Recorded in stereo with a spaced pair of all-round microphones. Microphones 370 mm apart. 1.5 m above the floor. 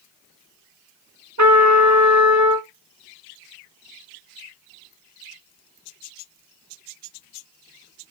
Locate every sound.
1.4 s a trumpet: 45° right (ahead or behind), 1.2 m